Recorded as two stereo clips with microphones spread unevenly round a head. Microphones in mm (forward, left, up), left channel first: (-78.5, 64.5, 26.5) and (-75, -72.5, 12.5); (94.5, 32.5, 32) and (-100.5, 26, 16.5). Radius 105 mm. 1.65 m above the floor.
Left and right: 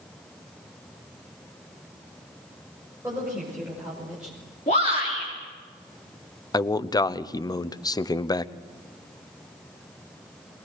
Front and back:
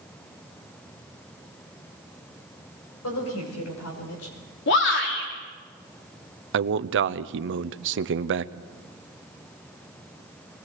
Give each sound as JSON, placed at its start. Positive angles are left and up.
{"t": 3.0, "sound": "a woman speaking", "azimuth_deg": -10, "distance_m": 6.5}
{"t": 4.7, "sound": "a shout", "azimuth_deg": 30, "distance_m": 4.0}
{"t": 6.5, "sound": "a man speaking", "azimuth_deg": 155, "distance_m": 0.8}